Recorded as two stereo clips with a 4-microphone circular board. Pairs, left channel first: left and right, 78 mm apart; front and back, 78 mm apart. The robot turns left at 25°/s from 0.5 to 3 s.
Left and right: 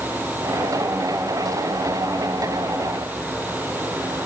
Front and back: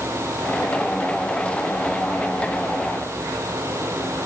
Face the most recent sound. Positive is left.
No sound to turn to.